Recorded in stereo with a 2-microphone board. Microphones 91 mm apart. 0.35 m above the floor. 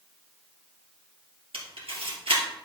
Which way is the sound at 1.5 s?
85° right.